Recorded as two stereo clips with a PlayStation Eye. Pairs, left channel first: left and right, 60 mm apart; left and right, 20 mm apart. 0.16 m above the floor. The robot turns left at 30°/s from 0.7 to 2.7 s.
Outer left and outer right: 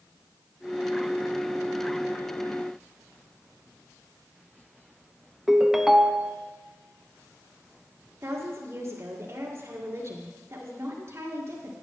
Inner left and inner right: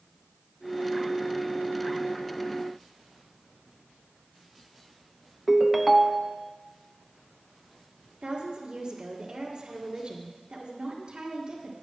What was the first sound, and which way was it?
A ringtone, 5° right (ahead or behind).